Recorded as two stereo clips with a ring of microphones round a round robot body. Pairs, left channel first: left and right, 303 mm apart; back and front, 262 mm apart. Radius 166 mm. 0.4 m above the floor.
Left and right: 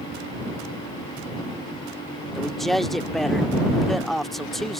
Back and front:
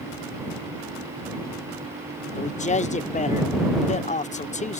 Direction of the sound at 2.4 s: Straight behind.